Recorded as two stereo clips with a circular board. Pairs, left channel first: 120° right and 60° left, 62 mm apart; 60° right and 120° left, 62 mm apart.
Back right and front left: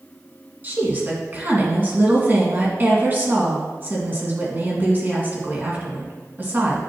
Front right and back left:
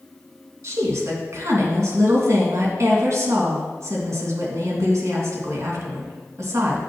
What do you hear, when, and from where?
0.6 s a woman speaking: 110° left, 2.5 m